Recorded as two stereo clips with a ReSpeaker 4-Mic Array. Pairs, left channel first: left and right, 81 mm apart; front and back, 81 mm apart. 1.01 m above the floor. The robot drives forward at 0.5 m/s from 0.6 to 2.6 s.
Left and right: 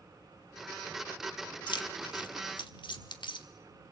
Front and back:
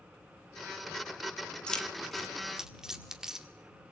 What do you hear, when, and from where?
1.7 s keys jangling: 80° left, 1.5 m; by 3.5 s 95° left, 1.5 m